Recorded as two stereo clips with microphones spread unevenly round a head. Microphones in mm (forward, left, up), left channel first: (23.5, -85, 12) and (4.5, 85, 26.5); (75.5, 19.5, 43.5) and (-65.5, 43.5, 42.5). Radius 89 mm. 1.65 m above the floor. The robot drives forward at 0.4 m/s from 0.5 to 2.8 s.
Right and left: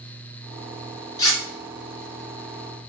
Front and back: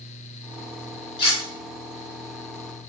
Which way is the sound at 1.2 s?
25° right.